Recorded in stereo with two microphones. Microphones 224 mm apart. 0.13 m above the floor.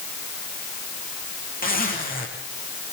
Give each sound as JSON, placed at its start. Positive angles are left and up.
{"t": 1.6, "sound": "a zipper", "side_deg": 40, "distance_m": 7.0}